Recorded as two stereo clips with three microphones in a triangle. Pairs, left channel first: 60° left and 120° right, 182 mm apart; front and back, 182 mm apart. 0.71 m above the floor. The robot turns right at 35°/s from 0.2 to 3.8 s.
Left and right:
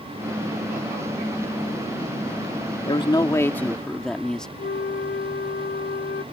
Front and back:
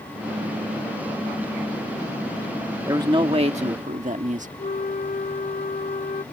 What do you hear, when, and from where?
2.9 s a man speaking: 110° left; by 4.5 s 145° left
4.6 s a flute: 40° left